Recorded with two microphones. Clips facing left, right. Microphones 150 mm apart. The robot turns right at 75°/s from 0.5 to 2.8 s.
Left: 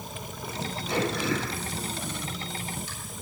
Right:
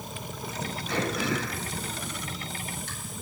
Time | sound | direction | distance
0.9 | throat clearing | 20° left (ahead or behind) | 7 m